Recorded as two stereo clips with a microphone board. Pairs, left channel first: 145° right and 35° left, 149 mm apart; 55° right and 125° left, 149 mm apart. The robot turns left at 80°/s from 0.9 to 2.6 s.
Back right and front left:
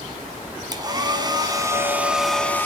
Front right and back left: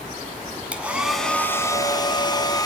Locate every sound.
0.7 s a hair dryer: 55° left, 1.7 m; by 2.7 s 85° right, 1.7 m